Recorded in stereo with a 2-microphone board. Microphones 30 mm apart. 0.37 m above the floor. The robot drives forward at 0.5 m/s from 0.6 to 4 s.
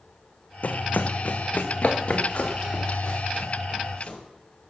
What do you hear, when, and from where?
0.6 s running footsteps: 60° left (ahead or behind), 0.9 m; by 4.2 s 30° left (ahead or behind), 4.5 m